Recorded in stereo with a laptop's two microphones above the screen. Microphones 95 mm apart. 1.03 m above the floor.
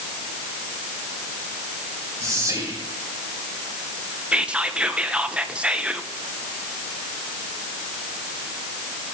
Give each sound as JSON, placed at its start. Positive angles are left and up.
{"t": 2.2, "sound": "whispering", "side_deg": -35, "distance_m": 3.0}
{"t": 4.3, "sound": "whispering", "side_deg": -10, "distance_m": 0.8}